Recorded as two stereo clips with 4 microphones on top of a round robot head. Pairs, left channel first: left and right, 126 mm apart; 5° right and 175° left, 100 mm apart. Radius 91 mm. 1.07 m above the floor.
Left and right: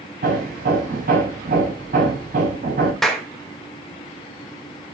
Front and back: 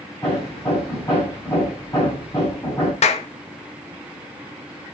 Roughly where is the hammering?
Right.